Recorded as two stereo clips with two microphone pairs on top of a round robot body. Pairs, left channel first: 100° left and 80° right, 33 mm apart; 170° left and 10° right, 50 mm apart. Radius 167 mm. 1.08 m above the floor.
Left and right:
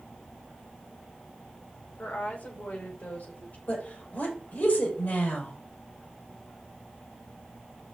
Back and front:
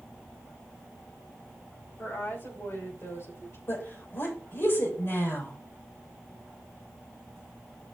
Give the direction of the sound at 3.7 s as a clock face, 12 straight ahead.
8 o'clock.